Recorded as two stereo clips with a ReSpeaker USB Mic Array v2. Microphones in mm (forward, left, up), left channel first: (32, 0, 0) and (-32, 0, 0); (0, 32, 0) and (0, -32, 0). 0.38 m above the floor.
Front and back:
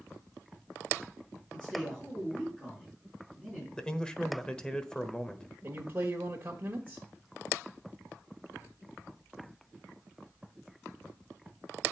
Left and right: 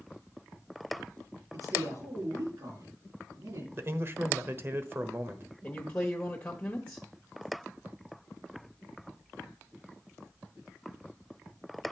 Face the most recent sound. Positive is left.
turn(degrees=150)